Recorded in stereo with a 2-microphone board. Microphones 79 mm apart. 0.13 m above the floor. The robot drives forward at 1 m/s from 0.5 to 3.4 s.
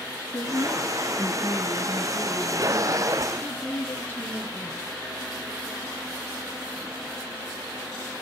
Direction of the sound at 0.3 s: 30° left (ahead or behind).